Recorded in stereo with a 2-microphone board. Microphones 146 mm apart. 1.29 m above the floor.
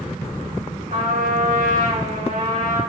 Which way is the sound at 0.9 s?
65° right (ahead or behind).